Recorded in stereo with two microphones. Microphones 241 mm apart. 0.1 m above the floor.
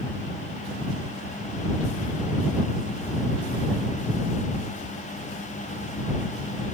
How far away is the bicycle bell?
I don't hear a bicycle bell.